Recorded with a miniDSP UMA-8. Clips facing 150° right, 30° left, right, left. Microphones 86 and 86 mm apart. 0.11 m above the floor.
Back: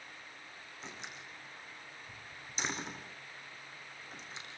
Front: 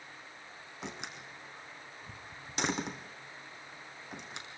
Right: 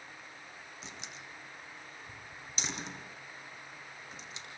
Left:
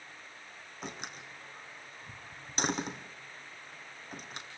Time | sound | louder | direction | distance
0.8 | a door slam | front 5 dB, left 8 dB | 50° left | 3.5 m